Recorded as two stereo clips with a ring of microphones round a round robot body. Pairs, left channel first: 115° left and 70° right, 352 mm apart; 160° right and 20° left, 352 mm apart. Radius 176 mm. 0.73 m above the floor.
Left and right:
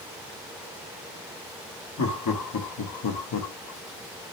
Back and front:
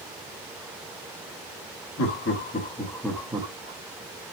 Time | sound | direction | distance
2.0 | laughter | 155° left | 1.1 m